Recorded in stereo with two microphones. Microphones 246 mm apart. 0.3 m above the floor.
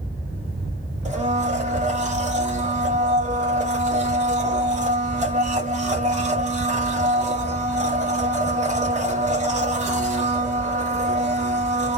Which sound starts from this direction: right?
A blender, at 1.1 s.